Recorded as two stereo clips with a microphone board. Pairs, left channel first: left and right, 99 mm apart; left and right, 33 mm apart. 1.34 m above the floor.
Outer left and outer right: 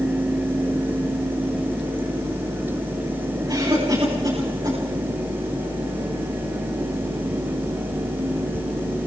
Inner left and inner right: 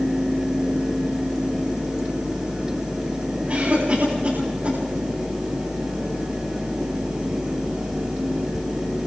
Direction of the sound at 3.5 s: 50° right (ahead or behind).